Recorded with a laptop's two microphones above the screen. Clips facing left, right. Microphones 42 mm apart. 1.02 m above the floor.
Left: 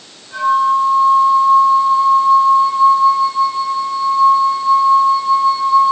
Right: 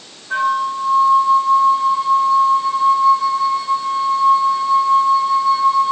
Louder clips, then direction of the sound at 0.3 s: Left 5 dB; 55° right (ahead or behind).